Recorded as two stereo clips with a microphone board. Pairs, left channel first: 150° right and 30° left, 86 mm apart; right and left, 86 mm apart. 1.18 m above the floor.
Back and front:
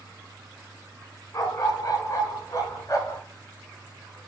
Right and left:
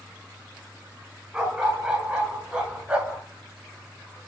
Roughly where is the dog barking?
Behind.